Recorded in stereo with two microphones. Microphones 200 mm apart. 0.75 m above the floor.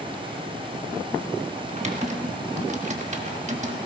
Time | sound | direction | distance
1.7 | typing on a keyboard | 35° right (ahead or behind) | 1.3 m